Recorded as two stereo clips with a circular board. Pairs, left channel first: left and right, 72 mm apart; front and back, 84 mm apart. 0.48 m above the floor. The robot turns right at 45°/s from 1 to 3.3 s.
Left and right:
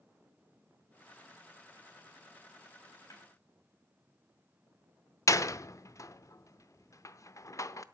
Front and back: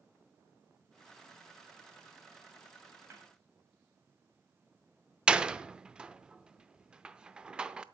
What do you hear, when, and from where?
3.1 s a snare drum: 125° left, 3 m; by 3.3 s 130° left, 3 m
5.3 s a door slam: 105° left, 0.6 m